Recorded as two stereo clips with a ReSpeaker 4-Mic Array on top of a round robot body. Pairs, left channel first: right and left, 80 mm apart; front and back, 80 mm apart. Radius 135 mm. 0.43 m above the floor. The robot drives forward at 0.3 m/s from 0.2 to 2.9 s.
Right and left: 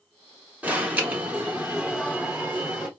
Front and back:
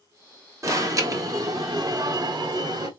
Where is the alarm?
155° left, 1.6 m; by 2.9 s 165° left, 2 m.